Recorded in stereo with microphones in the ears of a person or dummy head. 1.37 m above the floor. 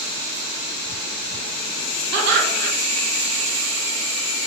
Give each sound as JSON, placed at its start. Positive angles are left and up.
{"t": 2.1, "sound": "laughter", "side_deg": -65, "distance_m": 0.7}